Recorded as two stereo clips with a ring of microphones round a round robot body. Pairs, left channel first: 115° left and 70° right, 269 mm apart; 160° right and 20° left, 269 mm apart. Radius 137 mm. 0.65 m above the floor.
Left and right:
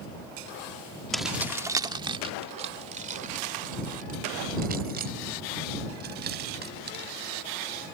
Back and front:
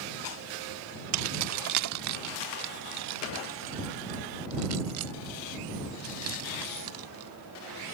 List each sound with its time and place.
1.1 s keys jangling: 25° left; by 8.0 s 15° right